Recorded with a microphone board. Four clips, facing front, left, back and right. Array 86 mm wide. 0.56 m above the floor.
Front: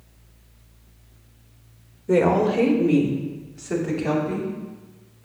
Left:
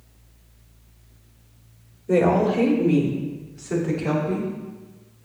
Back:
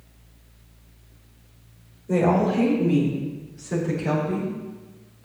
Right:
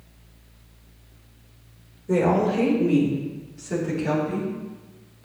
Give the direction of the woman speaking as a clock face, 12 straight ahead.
12 o'clock.